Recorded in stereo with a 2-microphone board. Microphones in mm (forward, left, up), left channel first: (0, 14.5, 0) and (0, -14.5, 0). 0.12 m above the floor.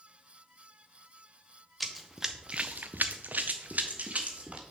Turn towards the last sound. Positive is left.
turn(degrees=-45)  # may be behind; listen again after turning